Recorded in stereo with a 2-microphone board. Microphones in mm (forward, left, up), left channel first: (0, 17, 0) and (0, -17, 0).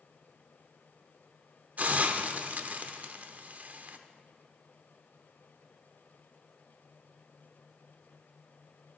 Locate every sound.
1.8 s a hiss: 50° right (ahead or behind), 0.6 m